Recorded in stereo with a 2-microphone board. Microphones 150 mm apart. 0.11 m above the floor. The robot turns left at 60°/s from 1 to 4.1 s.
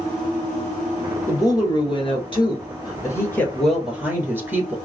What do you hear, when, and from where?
1.3 s a woman speaking: 150° left, 1.6 m; by 4.8 s 20° right, 1.6 m